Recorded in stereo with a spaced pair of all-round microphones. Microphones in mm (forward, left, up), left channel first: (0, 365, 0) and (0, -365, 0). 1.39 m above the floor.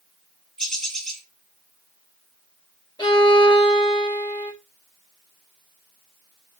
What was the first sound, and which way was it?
A bird, centre (ahead or behind).